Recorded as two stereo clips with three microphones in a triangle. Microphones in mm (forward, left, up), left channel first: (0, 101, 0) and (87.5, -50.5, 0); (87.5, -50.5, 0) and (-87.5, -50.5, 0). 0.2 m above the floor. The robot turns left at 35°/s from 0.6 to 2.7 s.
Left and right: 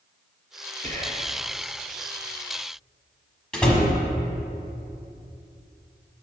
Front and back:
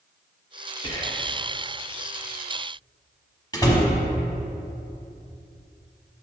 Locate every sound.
0.8 s whispering: 45° right, 1.4 m; by 1.3 s 60° right, 1.4 m
3.5 s a door slam: 40° left, 1.1 m